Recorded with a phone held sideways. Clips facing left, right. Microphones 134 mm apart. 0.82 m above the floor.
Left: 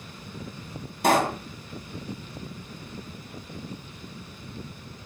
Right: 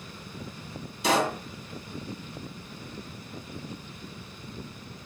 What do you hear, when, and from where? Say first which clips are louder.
1.0 s a pop: left 3 dB; 55° left (ahead or behind), 3 m